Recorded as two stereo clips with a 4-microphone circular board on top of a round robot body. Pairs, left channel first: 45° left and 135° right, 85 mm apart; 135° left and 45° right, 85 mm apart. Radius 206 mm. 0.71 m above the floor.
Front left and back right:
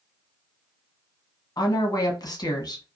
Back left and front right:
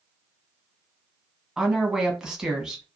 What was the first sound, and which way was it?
A woman speaking, 35° left.